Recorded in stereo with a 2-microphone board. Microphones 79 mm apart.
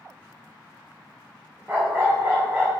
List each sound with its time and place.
1.7 s a dog barking: 20° right (ahead or behind), 0.8 m